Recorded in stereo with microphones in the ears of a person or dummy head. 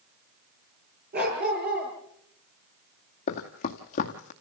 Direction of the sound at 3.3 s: 35° left (ahead or behind).